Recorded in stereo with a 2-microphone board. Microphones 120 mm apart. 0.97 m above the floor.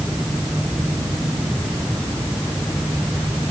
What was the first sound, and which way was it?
Only background noise.